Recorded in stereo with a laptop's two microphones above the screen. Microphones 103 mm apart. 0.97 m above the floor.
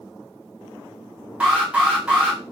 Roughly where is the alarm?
Centre.